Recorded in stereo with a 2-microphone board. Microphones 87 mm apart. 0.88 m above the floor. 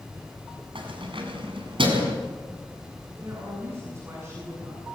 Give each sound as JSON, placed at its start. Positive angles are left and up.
{"t": 0.8, "sound": "keys jangling", "side_deg": -80, "distance_m": 6.0}
{"t": 3.2, "sound": "a woman speaking", "side_deg": -30, "distance_m": 8.5}